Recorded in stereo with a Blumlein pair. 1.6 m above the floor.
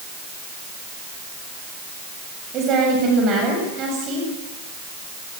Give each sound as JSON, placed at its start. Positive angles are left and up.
{"t": 2.5, "sound": "a woman speaking", "azimuth_deg": -35, "distance_m": 8.0}